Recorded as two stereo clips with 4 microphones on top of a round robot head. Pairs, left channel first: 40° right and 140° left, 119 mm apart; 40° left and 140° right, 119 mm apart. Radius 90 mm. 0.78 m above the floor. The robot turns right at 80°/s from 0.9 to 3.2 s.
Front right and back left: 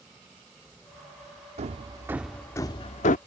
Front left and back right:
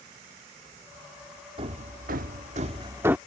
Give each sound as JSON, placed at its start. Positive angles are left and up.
{"t": 1.6, "sound": "hammering", "azimuth_deg": 170}